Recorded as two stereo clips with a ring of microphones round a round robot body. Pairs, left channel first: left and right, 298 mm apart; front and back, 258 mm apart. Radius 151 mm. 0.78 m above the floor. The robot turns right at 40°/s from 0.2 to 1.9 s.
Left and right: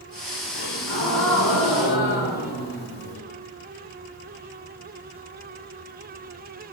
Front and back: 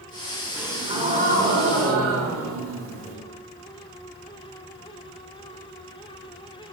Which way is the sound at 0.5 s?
95° left.